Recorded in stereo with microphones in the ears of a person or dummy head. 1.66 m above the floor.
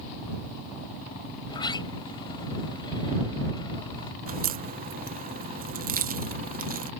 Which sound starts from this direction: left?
A sliding door, at 1.5 s.